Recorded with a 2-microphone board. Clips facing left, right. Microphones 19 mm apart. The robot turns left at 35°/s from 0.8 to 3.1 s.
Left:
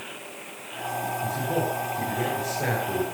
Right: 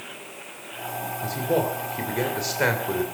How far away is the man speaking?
About 3 m.